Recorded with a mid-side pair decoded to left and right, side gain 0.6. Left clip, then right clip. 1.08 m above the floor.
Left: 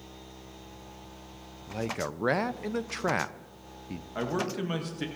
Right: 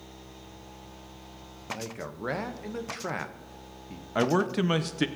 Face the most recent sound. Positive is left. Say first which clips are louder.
# right 6 dB
turn(degrees=-40)